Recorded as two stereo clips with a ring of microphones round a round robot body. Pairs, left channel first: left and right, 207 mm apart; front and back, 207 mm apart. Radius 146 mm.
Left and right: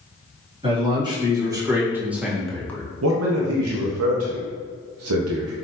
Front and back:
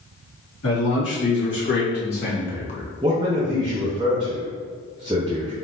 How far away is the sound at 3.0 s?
About 0.7 m.